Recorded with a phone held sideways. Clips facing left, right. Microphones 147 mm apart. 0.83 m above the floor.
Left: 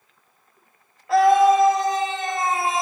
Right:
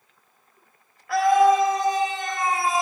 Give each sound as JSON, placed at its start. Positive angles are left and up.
{"t": 1.1, "sound": "a scream", "side_deg": 25, "distance_m": 0.9}